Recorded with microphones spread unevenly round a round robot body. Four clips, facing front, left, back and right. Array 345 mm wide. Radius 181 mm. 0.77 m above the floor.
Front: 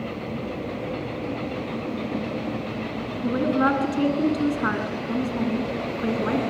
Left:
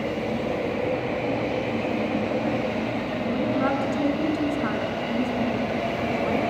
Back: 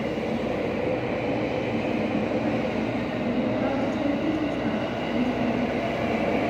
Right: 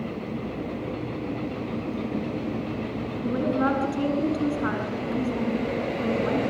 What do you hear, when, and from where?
3.2 s a woman speaking: 5° right, 8 m